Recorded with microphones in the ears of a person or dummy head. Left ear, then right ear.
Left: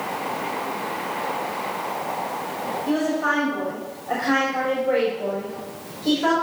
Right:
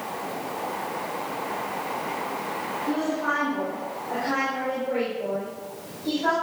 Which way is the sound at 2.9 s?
80° left.